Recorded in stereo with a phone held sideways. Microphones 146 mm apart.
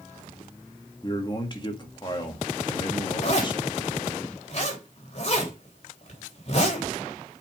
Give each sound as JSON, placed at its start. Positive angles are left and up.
{"t": 1.0, "sound": "a man speaking", "side_deg": 30, "distance_m": 2.0}
{"t": 3.2, "sound": "a zipper", "side_deg": 50, "distance_m": 3.5}